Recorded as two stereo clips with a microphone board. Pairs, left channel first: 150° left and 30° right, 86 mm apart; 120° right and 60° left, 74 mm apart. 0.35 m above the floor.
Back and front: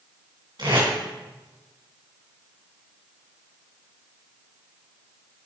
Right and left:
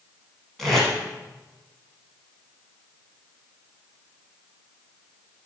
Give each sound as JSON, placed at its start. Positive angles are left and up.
{"t": 0.6, "sound": "tape being pulled", "azimuth_deg": -35, "distance_m": 3.0}